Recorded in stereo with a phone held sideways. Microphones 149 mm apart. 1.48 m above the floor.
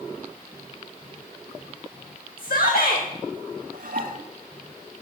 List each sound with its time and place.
2.4 s a shout: 80° left, 1.8 m
3.7 s dishes clattering: 65° right (ahead or behind), 2.0 m